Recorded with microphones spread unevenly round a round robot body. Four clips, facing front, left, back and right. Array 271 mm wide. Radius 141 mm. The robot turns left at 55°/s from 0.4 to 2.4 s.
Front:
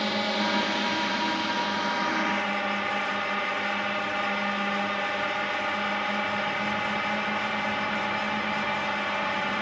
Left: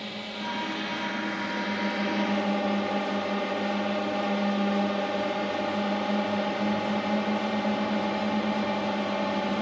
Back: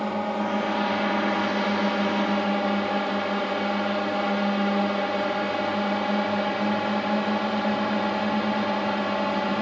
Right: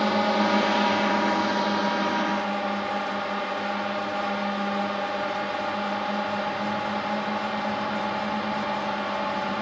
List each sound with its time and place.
0.0 s a drone: 100° right; by 9.6 s 150° left